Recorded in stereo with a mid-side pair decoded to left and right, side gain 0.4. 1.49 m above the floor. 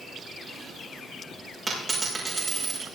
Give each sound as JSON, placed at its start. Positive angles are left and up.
{"t": 1.7, "sound": "a dropped coin", "azimuth_deg": -30, "distance_m": 6.5}